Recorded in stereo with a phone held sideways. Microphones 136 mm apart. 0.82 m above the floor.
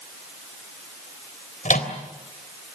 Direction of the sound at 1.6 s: 75° left (ahead or behind).